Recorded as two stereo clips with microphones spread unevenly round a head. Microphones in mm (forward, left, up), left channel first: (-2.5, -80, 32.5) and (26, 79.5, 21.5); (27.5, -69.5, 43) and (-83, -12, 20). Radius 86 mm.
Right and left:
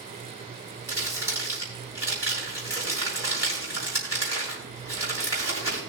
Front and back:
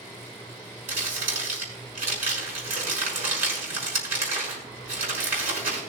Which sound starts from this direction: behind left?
Crumpling, at 0.9 s.